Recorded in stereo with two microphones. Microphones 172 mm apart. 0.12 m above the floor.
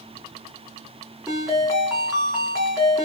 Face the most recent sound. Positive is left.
turn(degrees=0)  # may be behind; listen again after turning